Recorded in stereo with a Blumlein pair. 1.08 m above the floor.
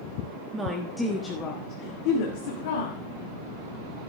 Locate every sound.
0.5 s a woman speaking: 15° right, 1.4 m; by 3.0 s 60° left, 2.5 m